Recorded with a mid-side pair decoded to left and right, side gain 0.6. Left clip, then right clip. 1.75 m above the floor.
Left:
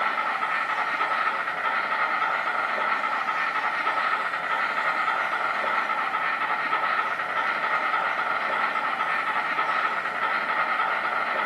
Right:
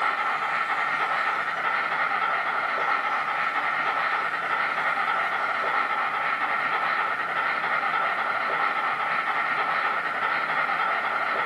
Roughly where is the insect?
Ahead.